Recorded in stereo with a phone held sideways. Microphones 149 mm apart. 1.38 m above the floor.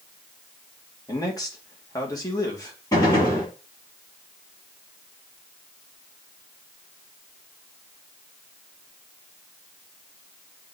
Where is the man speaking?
25° left (ahead or behind), 2.5 m.